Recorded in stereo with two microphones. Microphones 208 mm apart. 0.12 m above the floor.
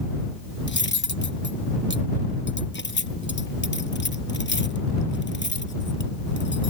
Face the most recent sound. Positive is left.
turn(degrees=60)  # may be behind; listen again after turning